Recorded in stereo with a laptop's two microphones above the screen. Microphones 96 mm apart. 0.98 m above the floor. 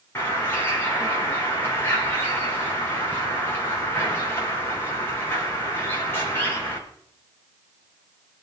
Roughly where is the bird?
Left.